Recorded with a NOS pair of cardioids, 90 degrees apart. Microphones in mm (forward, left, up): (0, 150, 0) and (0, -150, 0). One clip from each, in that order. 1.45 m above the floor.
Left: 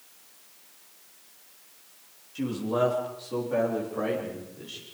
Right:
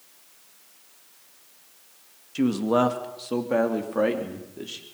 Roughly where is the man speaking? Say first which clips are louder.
Right 5 dB; ahead right.